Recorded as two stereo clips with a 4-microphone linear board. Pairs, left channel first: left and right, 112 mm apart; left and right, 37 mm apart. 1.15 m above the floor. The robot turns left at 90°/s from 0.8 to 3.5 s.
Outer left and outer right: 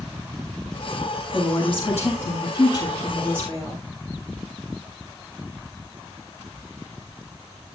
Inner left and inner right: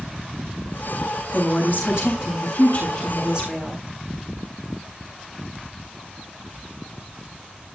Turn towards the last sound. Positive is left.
turn(degrees=-30)